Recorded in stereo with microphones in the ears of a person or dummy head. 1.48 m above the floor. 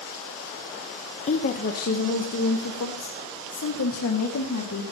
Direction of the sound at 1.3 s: 35° left (ahead or behind).